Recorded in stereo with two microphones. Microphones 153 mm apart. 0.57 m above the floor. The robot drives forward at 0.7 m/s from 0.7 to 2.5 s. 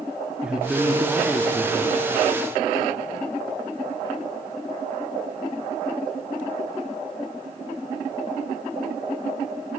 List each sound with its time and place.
0.4 s a woman speaking: 5° right (ahead or behind), 1.1 m